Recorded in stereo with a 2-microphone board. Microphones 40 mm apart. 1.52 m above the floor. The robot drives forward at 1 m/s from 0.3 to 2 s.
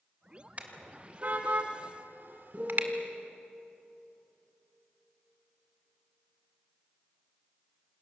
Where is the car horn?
35° right (ahead or behind), 3 m; by 2.9 s 55° right (ahead or behind), 2.0 m.